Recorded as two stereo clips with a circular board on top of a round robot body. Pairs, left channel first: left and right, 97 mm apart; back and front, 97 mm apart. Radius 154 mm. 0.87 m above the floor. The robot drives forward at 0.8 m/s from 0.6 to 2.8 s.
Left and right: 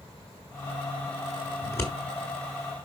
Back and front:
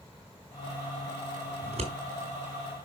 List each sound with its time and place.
1.6 s scissors: 20° left, 1.9 m; by 1.9 s 25° left, 1.7 m